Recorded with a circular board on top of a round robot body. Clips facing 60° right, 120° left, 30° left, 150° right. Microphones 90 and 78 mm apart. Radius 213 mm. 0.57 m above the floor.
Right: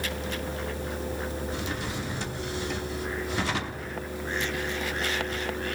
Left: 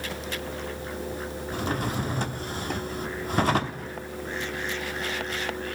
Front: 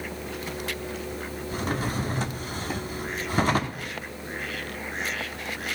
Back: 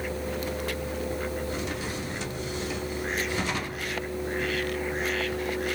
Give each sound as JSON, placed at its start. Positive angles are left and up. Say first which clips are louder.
{"t": 1.5, "sound": "a drawer", "louder": "left 4 dB, front 3 dB", "azimuth_deg": 75, "distance_m": 0.7}